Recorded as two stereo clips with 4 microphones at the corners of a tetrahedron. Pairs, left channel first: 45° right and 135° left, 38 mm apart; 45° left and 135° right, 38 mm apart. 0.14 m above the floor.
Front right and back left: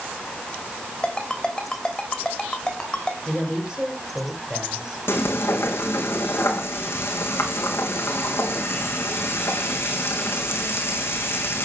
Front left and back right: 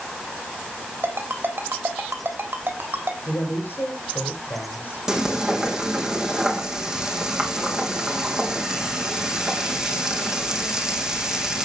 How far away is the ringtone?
About 3 m.